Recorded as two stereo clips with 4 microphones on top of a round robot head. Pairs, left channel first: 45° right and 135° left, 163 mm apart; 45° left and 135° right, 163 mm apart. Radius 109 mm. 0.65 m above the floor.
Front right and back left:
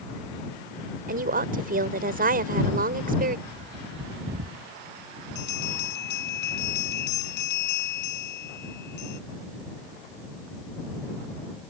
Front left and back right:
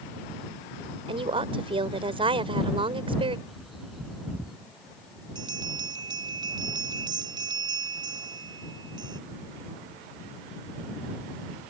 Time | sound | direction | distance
1.1 | a woman speaking | 170° left | ?
3.5 | a bird | 140° left | ?
5.3 | a bell | 65° right | ?